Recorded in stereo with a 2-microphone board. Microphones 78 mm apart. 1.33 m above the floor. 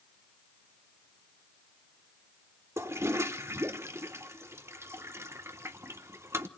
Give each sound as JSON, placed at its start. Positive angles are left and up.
{"t": 2.8, "sound": "a toilet flushing", "side_deg": -30, "distance_m": 1.1}